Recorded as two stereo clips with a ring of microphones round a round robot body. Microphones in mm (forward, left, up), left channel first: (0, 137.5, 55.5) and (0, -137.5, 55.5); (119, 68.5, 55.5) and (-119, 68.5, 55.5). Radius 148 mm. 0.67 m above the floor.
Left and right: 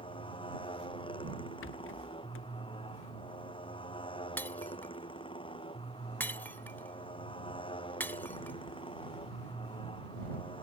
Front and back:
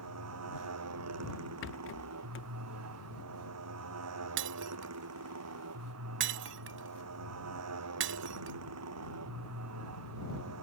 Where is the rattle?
40° left.